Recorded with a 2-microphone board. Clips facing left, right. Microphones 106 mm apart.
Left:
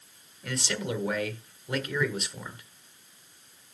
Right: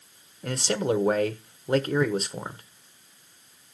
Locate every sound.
0.4 s a man speaking: 45° right (ahead or behind), 1.1 m